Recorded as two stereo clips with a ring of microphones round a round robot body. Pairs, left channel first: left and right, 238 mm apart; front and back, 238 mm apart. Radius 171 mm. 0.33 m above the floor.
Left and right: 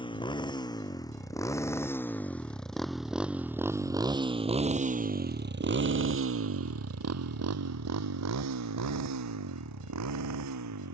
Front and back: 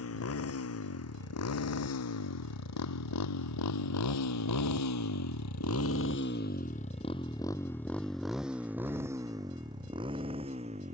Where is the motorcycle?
20° left; by 10.9 s 110° right.